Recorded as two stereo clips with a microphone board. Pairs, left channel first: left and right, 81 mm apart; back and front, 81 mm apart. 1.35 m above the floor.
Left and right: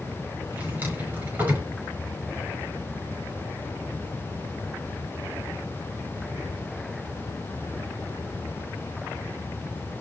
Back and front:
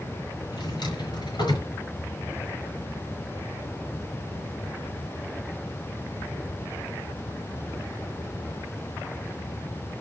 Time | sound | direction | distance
0.5 | a drawer | 155° right | 5 m